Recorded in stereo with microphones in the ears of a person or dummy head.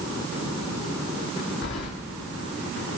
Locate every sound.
1.6 s keys jangling: 60° left (ahead or behind), 2.5 m